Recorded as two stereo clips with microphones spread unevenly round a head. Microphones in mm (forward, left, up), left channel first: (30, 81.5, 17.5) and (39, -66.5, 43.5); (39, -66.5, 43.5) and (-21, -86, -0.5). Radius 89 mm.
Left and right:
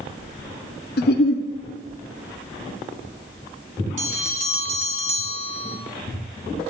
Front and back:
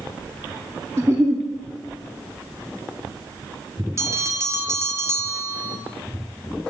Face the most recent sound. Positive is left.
turn(degrees=-140)